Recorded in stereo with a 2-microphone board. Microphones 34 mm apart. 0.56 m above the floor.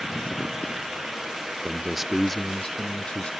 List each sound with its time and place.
1.6 s a man speaking: 30° right (ahead or behind); by 3.3 s 40° left (ahead or behind)